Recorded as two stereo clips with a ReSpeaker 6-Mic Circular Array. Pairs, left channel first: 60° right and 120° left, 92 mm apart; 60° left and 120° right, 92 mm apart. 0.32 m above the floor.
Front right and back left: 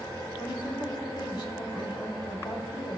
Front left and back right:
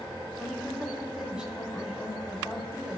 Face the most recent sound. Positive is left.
turn(degrees=-40)